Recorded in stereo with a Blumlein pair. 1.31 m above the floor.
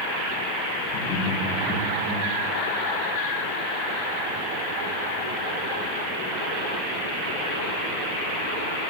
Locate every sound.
0.9 s laughter: 45° left, 1.5 m; by 2.2 s 15° left, 1.1 m